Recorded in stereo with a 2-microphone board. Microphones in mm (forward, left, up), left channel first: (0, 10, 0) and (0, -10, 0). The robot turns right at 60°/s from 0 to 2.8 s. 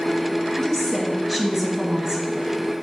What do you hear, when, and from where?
0.6 s a woman speaking: 155° left, 1.2 m; by 2.5 s 90° right, 1.2 m